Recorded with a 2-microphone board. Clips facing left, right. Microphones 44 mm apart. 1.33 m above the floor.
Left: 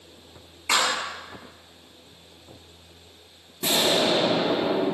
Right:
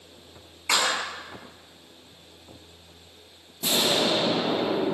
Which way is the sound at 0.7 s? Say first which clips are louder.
Left 1 dB; 15° left (ahead or behind).